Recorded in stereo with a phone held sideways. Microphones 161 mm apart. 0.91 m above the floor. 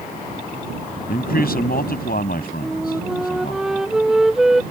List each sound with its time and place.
1.1 s a man speaking: 70° left (ahead or behind)
2.6 s a flute: centre (ahead or behind)